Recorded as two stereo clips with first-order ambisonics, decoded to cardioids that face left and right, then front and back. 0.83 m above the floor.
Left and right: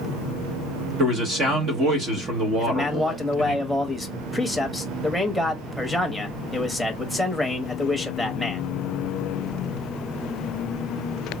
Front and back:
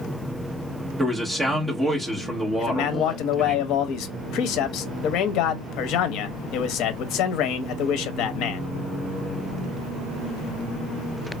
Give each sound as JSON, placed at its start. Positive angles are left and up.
{"t": 1.0, "sound": "a man speaking", "azimuth_deg": -105, "distance_m": 1.0}
{"t": 2.6, "sound": "a man speaking", "azimuth_deg": -5, "distance_m": 0.7}